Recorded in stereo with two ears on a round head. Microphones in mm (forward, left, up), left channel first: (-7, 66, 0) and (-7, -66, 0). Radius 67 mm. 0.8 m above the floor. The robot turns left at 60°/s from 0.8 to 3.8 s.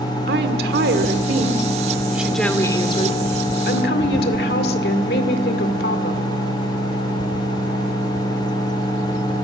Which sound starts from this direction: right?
A woman speaking, at 0.3 s.